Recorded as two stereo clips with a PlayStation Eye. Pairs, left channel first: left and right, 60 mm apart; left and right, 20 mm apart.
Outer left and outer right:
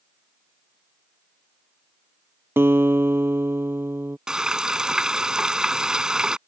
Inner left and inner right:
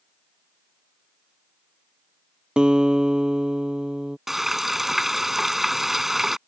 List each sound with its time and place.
2.6 s a guitar: 45° right (ahead or behind)
4.3 s frying: 10° right (ahead or behind)